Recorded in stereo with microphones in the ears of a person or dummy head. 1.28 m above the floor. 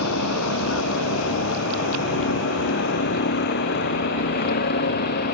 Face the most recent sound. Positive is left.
turn(degrees=55)  # may be behind; listen again after turning